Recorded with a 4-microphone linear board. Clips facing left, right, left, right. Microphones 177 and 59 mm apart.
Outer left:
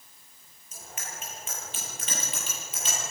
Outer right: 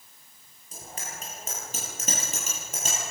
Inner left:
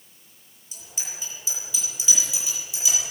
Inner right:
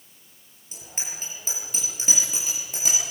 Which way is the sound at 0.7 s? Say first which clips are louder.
Outer right 2 dB, inner right 1 dB; 40° right (ahead or behind).